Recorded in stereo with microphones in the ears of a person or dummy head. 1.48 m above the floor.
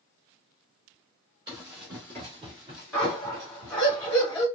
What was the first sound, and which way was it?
Running footsteps, 15° right (ahead or behind).